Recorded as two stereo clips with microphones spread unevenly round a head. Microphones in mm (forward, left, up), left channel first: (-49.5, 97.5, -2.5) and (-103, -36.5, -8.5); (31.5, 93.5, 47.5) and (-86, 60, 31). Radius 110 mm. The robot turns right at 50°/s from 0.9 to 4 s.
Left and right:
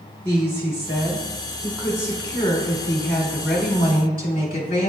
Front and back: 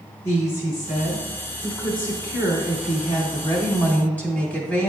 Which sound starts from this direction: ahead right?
A woman speaking, at 0.2 s.